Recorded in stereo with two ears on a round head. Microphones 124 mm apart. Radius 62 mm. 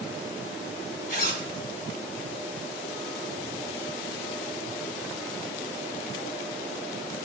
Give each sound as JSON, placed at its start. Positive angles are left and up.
{"t": 1.1, "sound": "a zipper", "side_deg": 60, "distance_m": 2.0}